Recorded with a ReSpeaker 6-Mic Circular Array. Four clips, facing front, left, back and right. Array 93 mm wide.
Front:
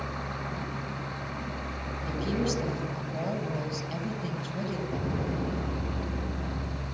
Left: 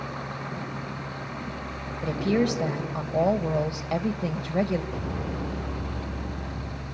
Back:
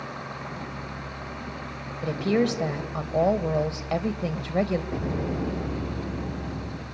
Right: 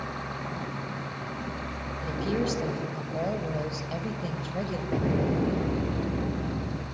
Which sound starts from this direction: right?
An explosion, at 4.9 s.